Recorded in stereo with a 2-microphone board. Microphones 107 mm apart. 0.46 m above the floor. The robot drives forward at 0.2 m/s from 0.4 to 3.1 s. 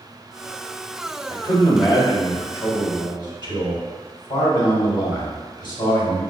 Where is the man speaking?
45° left (ahead or behind), 1.7 m.